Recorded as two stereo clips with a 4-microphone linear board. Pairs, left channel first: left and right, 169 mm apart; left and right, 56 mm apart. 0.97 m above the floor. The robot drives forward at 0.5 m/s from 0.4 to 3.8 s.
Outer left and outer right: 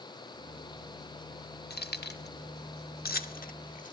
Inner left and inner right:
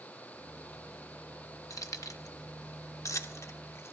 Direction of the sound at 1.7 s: 70° left (ahead or behind).